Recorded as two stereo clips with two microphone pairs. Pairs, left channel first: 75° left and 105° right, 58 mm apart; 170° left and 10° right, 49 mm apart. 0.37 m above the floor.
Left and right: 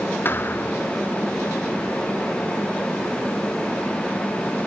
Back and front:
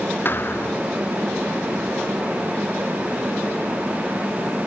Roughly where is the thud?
Behind left.